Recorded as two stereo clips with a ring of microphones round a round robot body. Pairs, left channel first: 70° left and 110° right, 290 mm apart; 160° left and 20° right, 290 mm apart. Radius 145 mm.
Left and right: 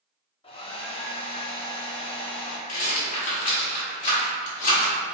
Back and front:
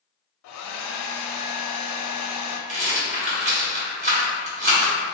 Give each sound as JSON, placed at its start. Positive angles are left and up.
{"t": 0.4, "sound": "a hair dryer", "azimuth_deg": 135, "distance_m": 0.5}
{"t": 2.7, "sound": "a rattle", "azimuth_deg": 25, "distance_m": 1.4}